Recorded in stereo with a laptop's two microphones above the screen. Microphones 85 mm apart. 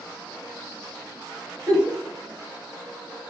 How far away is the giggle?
About 1.4 m.